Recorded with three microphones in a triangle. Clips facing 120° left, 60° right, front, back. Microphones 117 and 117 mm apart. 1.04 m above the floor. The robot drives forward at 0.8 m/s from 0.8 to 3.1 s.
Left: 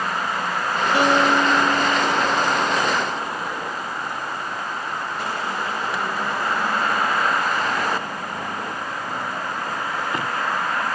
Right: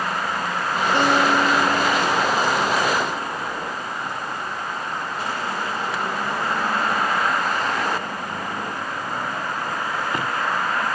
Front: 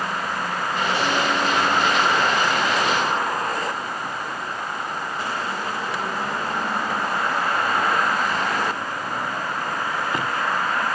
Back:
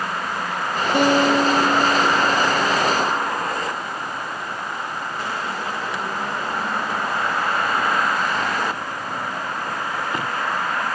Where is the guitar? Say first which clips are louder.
Left 1 dB, back 9 dB; 160° right, 0.7 m; by 3.5 s 175° right, 2.5 m.